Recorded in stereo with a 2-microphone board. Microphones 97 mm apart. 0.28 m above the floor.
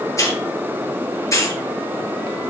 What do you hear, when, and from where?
0.2 s a hiss: 30° left (ahead or behind), 2.5 m